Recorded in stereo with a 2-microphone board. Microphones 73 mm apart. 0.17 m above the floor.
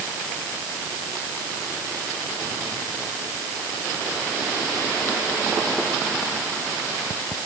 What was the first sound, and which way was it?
Only background noise.